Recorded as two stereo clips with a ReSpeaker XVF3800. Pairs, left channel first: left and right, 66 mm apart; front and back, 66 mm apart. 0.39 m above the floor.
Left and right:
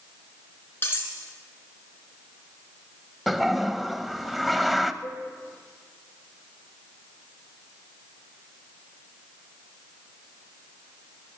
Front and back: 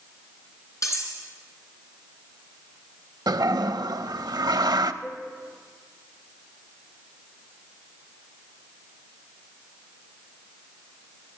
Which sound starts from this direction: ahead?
A cowbell, at 5.0 s.